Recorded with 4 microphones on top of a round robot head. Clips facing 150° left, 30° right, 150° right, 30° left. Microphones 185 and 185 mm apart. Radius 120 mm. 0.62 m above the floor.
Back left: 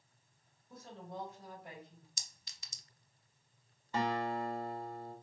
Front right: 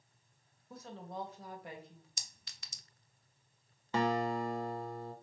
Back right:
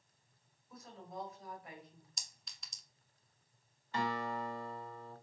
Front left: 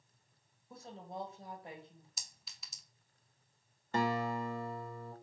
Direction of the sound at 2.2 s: 55° right.